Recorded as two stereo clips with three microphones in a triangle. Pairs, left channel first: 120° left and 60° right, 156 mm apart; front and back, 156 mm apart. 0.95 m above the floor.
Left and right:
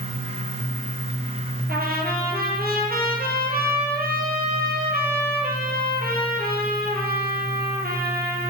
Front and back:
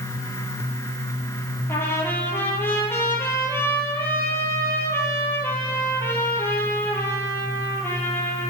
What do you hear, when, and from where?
1.7 s a trumpet: 75° right, 3.5 m